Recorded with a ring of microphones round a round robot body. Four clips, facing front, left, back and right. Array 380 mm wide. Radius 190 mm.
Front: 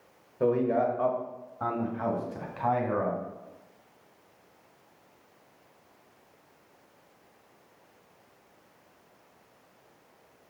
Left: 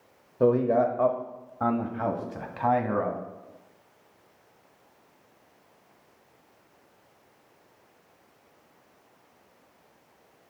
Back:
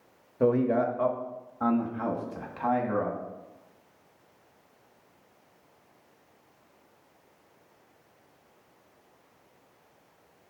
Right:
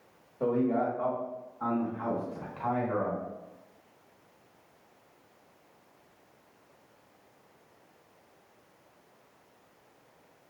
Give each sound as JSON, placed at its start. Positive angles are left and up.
{"t": 0.4, "sound": "a man speaking", "azimuth_deg": 115, "distance_m": 1.0}